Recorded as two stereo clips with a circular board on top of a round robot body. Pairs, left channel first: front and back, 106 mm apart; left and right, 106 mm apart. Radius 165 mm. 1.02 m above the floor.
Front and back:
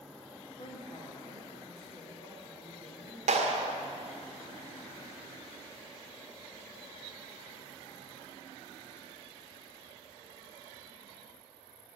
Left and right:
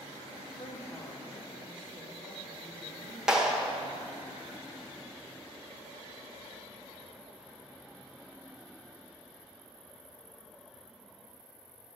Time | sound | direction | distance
0.6 | a woman speaking | 35° left | 0.8 m
3.3 | a clap | 175° right | 0.9 m